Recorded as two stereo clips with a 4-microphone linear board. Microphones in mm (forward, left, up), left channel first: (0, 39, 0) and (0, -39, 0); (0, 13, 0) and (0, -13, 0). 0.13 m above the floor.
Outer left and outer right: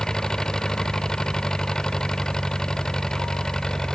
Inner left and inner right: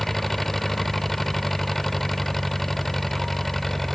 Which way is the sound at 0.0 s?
10° left (ahead or behind).